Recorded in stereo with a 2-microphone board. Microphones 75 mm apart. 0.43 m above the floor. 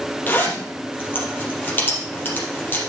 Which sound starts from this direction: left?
A zipper, at 0.3 s.